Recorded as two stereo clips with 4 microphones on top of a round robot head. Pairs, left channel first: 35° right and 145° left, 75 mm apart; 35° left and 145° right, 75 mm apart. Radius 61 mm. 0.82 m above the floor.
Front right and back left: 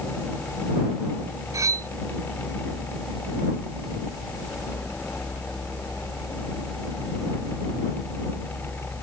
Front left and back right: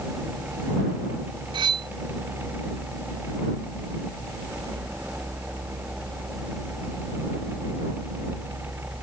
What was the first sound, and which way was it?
Cutlery clinking, 165° right.